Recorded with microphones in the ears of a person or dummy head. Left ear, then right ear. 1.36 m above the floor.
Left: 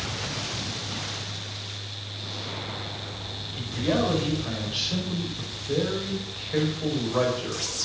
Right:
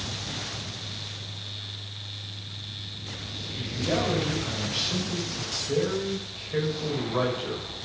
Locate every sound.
3.6 s a man speaking: 5° left (ahead or behind), 6 m